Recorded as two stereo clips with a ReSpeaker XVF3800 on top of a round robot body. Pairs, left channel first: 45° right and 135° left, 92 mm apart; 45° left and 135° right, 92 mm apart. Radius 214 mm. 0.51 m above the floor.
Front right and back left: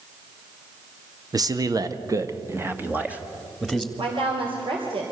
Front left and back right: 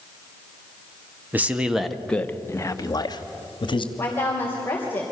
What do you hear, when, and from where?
1.3 s a man speaking: 160° left, 1.7 m; by 3.9 s 50° left, 2.5 m
4.0 s a woman speaking: 115° left, 3 m